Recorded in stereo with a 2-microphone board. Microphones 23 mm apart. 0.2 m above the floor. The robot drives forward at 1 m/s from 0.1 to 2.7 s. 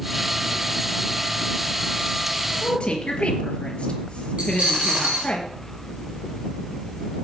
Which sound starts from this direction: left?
A woman speaking, at 2.6 s.